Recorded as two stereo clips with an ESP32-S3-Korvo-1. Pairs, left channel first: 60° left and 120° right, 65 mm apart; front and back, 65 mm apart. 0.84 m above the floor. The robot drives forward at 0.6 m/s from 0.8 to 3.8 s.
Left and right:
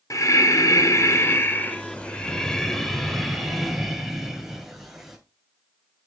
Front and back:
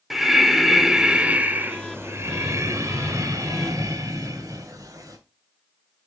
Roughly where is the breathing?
Left.